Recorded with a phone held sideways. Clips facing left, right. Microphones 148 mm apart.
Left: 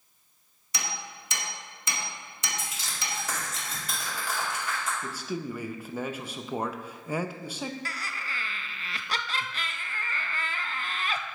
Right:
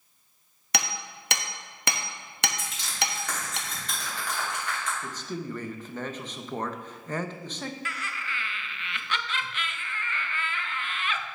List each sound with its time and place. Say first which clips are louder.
0.7 s hammering: right 5 dB; 70° right (ahead or behind), 0.7 m
2.6 s crushing: right 5 dB; 5° left (ahead or behind), 2.5 m
5.0 s a man speaking: left 1 dB; 10° left (ahead or behind), 0.5 m
7.8 s laughter: right 1 dB; 35° left (ahead or behind), 0.6 m